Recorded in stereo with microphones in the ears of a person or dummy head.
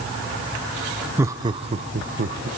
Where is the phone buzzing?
No phone buzzing in this recording.